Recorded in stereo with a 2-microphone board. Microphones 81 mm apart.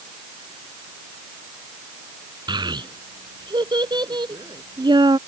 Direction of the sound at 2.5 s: 70° right (ahead or behind).